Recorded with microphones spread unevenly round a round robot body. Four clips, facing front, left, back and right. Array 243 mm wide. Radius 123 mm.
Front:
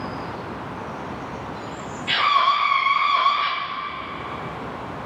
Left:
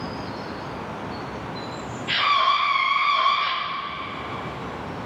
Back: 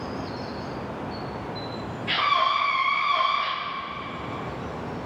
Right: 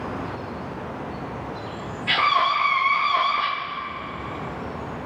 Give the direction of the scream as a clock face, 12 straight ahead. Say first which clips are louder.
Even, front 4 dB; 3 o'clock.